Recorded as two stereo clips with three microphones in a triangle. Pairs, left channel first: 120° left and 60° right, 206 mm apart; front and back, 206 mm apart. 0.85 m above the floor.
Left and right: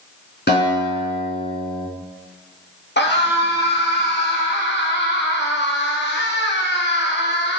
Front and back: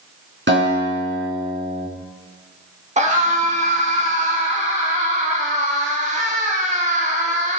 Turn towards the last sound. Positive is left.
turn(degrees=130)